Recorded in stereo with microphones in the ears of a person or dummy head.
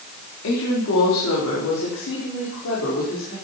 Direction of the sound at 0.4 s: 90° left.